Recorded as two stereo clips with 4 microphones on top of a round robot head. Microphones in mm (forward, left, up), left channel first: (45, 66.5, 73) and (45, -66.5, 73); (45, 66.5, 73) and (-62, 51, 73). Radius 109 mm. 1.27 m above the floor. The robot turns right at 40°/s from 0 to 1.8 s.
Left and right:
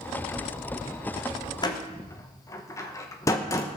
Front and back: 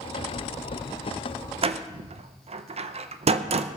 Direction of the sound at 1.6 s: 155° left.